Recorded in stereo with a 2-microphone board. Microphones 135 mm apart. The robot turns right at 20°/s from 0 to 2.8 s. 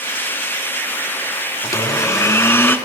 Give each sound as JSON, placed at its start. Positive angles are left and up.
{"t": 1.6, "sound": "a blender", "side_deg": 25, "distance_m": 0.5}